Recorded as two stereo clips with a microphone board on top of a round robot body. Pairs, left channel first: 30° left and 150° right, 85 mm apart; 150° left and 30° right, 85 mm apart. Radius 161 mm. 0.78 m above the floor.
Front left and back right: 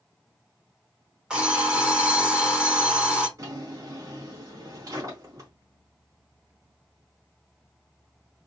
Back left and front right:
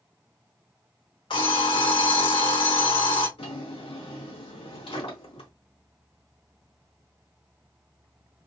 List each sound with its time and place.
1.3 s an alarm clock: 130° left, 1.7 m
3.4 s a drawer: 155° left, 1.8 m